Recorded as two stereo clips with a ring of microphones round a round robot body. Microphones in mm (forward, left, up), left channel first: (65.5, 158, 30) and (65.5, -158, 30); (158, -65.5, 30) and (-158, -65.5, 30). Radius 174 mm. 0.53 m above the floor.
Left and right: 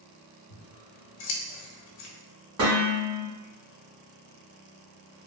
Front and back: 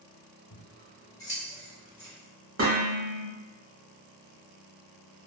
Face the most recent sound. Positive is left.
turn(degrees=-130)